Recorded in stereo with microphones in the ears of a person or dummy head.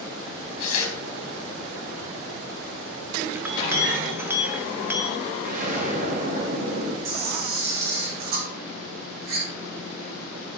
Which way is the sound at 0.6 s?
50° left (ahead or behind).